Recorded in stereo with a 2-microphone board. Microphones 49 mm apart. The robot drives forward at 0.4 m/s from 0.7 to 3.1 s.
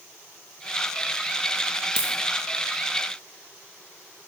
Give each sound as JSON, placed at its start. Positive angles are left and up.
{"t": 2.0, "sound": "a dropped coin", "side_deg": 75, "distance_m": 1.1}